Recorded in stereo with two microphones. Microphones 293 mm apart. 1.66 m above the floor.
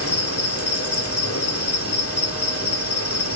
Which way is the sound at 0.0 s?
55° left (ahead or behind).